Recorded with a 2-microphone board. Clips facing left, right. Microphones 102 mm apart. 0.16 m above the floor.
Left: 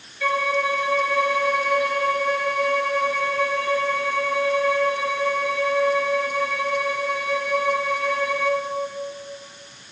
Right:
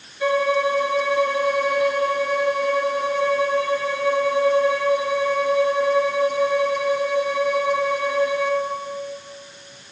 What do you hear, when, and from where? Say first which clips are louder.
0.2 s a violin: right 3 dB; 20° right (ahead or behind), 3.5 m